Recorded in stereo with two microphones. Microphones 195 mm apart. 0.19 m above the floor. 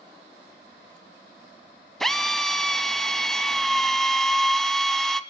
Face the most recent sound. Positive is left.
turn(degrees=0)  # may be behind; listen again after turning